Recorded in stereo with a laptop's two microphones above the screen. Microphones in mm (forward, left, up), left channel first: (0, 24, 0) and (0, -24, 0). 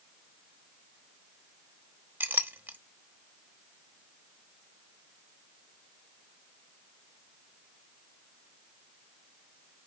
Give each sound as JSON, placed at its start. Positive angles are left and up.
{"t": 2.2, "sound": "a clink", "side_deg": -45, "distance_m": 1.1}